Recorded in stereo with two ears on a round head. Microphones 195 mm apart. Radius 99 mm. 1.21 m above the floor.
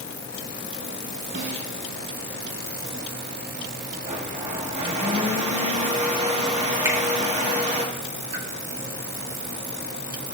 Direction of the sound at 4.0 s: 30° right (ahead or behind).